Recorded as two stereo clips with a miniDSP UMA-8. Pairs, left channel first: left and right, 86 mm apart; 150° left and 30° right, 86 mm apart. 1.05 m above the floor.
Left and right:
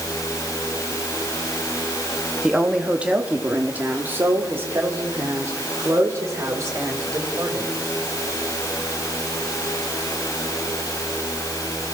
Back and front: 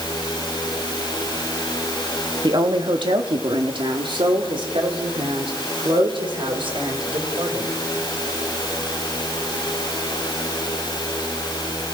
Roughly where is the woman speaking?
Ahead.